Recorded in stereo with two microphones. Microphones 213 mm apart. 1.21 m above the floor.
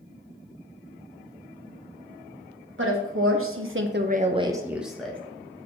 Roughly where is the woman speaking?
Right.